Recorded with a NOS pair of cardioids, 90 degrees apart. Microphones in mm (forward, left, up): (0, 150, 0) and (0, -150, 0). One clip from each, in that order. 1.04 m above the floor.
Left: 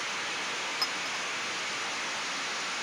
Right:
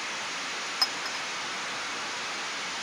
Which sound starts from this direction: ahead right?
A clink, at 0.8 s.